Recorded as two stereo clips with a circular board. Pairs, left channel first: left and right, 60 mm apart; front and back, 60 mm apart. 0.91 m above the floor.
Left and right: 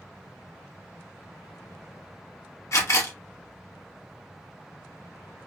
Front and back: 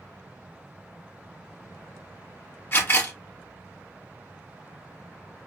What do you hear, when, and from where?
2.7 s a camera shutter: 55° left, 1.1 m